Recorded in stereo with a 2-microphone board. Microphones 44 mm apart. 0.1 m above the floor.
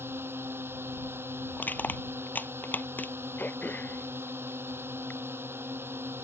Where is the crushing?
45° left (ahead or behind).